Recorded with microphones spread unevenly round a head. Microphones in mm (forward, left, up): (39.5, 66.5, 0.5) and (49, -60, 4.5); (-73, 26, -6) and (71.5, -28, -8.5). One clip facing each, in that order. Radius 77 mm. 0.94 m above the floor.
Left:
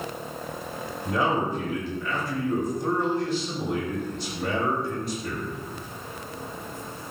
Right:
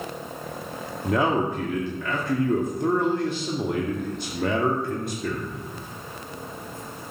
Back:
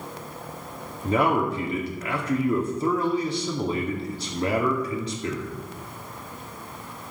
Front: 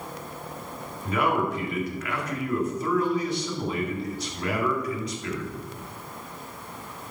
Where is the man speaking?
135° right, 2 m.